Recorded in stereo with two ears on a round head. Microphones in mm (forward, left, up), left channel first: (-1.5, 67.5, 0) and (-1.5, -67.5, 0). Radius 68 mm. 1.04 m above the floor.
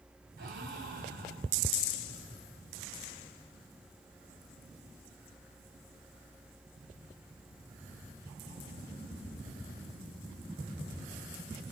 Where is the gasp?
65° right (ahead or behind), 4 m.